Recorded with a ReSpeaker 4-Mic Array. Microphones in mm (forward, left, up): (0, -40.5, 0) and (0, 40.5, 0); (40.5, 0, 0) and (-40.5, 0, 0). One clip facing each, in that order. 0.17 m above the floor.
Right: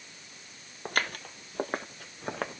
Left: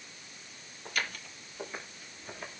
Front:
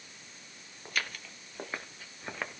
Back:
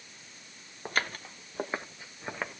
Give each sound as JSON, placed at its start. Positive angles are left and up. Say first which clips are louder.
{"t": 0.8, "sound": "footsteps", "louder": "right 5 dB, back 5 dB", "azimuth_deg": -130, "distance_m": 1.8}